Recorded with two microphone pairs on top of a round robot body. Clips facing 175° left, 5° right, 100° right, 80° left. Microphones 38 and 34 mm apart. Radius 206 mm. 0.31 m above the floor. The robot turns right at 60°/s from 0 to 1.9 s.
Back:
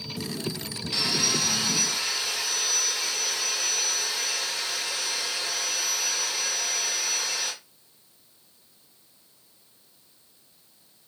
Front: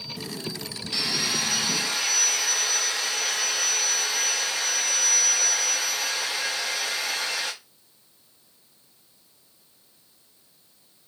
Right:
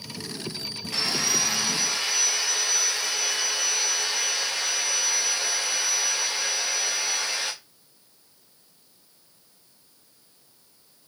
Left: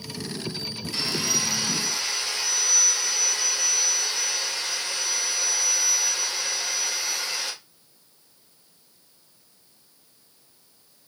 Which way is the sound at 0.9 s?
105° right.